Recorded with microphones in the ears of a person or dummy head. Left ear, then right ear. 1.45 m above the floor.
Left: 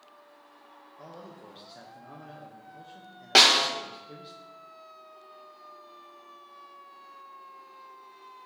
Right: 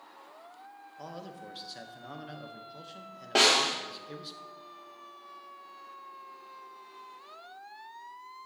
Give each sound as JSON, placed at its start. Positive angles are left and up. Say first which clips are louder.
{"t": 1.0, "sound": "a man speaking", "louder": "right 3 dB", "side_deg": -15, "distance_m": 0.8}
{"t": 3.4, "sound": "a snare drum", "louder": "left 5 dB", "side_deg": 55, "distance_m": 0.9}